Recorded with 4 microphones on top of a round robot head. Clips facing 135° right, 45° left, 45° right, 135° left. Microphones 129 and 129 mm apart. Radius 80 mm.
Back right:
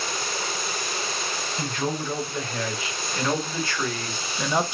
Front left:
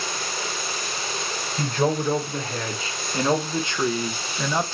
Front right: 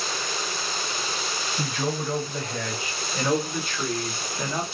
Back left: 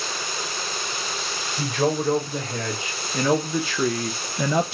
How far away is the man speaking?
About 2.5 m.